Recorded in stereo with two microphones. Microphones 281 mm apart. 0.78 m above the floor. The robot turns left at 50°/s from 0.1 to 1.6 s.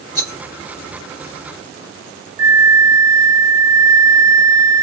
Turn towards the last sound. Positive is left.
turn(degrees=-60)  # may be behind; listen again after turning